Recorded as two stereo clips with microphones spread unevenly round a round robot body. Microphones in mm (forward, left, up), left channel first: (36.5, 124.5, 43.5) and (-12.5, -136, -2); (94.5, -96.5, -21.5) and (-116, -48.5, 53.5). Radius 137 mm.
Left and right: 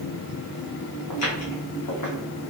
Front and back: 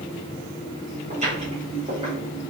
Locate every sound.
1.1 s footsteps: 105° left, 1.5 m; by 2.1 s 100° left, 2.0 m